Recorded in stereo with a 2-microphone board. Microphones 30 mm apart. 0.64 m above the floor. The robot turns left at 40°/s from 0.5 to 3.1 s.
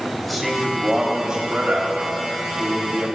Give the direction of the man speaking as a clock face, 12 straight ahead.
12 o'clock.